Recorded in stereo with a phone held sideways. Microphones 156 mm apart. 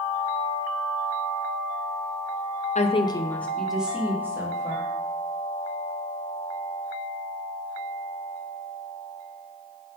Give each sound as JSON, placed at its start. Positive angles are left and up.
{"t": 2.8, "sound": "a woman speaking", "side_deg": 50, "distance_m": 0.5}